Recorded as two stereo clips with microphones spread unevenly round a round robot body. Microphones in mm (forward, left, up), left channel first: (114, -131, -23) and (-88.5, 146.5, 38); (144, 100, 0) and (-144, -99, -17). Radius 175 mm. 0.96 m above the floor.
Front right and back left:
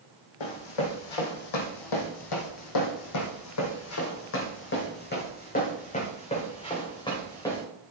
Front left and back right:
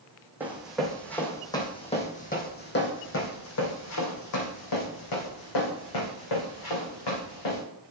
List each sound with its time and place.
0.4 s running footsteps: 60° right, 2 m; by 7.6 s 30° left, 3.5 m